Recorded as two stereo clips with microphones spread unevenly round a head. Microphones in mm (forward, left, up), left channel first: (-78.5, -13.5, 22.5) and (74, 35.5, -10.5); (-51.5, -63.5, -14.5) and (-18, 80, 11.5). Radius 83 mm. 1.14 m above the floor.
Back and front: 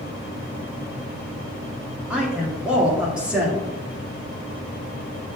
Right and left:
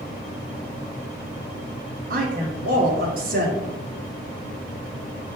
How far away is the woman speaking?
About 1.7 m.